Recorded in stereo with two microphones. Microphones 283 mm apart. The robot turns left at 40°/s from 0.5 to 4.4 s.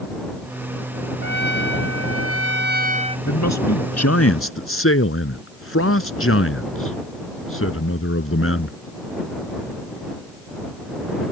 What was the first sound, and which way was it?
A trumpet, 85° right.